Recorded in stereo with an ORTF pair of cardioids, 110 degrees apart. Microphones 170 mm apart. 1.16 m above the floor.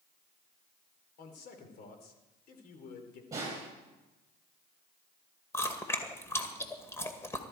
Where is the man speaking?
65° left, 3 m.